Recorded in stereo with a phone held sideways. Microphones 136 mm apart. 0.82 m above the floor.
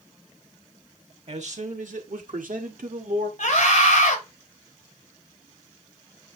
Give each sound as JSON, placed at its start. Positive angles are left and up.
{"t": 1.3, "sound": "a man speaking", "side_deg": -55, "distance_m": 1.8}
{"t": 3.4, "sound": "a scream", "side_deg": 55, "distance_m": 4.5}